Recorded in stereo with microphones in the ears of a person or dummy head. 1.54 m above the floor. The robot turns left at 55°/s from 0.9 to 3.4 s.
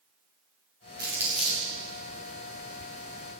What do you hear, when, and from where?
1.0 s crumpling: 20° right (ahead or behind), 2 m; by 1.7 s 15° left (ahead or behind), 2 m